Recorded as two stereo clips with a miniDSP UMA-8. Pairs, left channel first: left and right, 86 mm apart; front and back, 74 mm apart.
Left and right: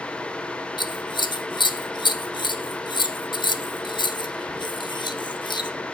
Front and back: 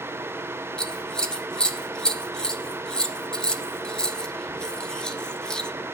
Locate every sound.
0.8 s scissors: 80° left, 0.7 m